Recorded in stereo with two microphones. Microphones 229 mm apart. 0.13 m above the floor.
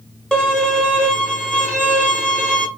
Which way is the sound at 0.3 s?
5° left (ahead or behind).